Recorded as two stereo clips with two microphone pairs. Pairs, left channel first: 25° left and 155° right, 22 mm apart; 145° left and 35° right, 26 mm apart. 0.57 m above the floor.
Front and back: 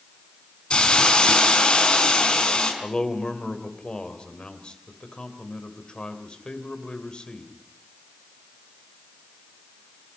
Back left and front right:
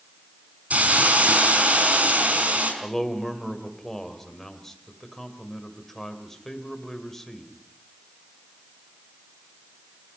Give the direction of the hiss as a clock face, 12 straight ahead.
1 o'clock.